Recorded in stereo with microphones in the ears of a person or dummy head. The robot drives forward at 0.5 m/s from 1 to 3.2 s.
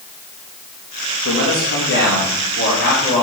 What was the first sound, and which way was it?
A man speaking, 65° left (ahead or behind).